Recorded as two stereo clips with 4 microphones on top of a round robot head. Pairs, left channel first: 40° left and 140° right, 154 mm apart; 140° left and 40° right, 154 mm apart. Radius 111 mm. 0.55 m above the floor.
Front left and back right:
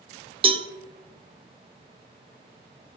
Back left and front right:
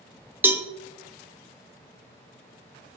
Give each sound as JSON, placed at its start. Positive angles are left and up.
{"t": 0.4, "sound": "a cowbell", "azimuth_deg": -110, "distance_m": 1.0}